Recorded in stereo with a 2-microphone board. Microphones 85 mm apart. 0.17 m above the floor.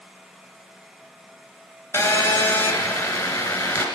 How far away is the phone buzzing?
About 1.8 m.